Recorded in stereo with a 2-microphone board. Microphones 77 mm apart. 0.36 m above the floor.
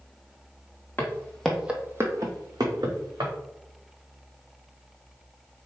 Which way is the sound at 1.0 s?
30° left (ahead or behind).